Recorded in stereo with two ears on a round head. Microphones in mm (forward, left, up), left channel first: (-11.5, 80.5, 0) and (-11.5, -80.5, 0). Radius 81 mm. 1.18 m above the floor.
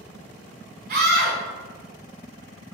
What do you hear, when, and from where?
0.9 s a scream: 40° right (ahead or behind), 0.5 m